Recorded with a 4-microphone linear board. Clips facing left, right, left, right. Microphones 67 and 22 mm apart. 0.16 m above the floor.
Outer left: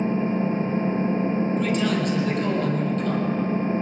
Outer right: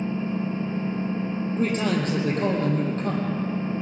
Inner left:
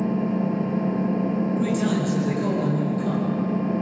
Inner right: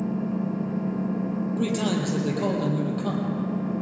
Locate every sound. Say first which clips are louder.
0.0 s an engine running: outer left 4 dB, inner left 4 dB; 35° left (ahead or behind), 1.3 m
1.6 s a man speaking: outer left 1 dB, inner left 2 dB; 35° right (ahead or behind), 5.5 m